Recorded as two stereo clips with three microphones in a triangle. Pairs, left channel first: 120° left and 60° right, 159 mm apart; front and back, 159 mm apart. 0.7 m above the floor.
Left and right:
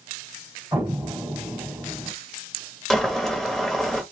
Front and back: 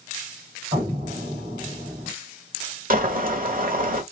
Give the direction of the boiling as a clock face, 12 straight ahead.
5 o'clock.